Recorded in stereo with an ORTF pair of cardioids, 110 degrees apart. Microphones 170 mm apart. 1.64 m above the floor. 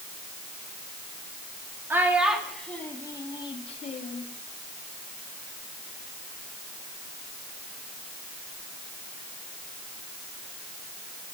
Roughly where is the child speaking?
Ahead.